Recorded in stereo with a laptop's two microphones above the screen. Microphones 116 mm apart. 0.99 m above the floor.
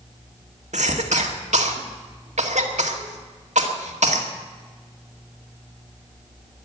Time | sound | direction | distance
0.7 | a cough | 80° right | 2.0 m